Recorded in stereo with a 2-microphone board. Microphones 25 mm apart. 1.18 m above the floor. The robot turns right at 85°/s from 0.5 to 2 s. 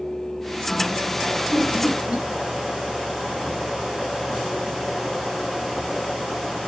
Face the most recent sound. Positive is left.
turn(degrees=-40)  # may be behind; listen again after turning